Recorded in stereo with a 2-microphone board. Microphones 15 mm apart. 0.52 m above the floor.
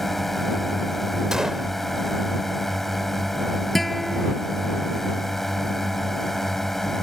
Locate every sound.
0.0 s a drone: 10° left (ahead or behind); by 7.0 s 15° left (ahead or behind)
1.3 s a gunshot: 50° right (ahead or behind)
3.8 s a guitar: 5° left (ahead or behind)